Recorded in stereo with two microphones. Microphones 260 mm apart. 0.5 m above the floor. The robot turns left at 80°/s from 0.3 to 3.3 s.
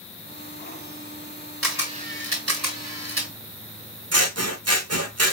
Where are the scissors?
65° right (ahead or behind), 1.0 m.